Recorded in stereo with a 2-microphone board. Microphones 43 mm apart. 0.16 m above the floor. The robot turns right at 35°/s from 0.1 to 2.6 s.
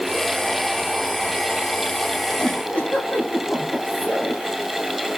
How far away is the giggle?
About 8.5 m.